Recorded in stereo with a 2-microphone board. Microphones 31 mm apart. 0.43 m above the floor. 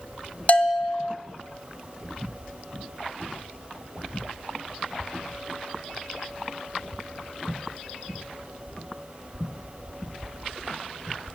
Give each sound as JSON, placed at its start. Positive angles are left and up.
{"t": 0.5, "sound": "a bell", "side_deg": 45, "distance_m": 1.5}